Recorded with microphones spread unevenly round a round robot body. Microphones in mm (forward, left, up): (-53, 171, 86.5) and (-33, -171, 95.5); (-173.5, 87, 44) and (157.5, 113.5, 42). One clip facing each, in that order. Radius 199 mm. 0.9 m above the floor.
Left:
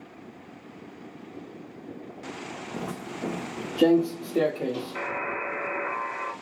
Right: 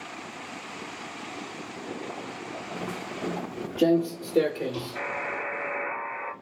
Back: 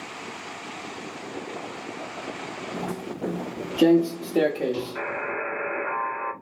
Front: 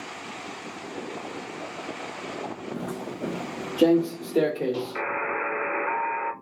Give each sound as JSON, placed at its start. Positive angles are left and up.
{"t": 2.7, "sound": "footsteps", "azimuth_deg": 90, "distance_m": 1.1}
{"t": 5.0, "sound": "a buzzer", "azimuth_deg": 55, "distance_m": 1.3}